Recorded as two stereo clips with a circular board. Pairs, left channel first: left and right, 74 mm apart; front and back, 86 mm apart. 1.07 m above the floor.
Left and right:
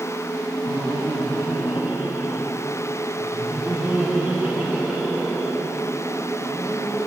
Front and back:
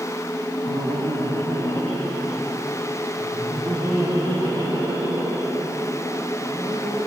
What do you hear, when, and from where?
0.7 s laughter: 145° right, 0.6 m; by 7.1 s 160° right, 5 m